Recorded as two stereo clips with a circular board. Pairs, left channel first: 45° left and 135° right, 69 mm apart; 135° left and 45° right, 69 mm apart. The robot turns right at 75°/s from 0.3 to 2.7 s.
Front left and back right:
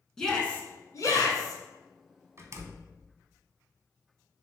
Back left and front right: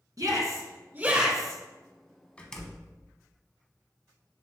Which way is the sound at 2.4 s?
160° right.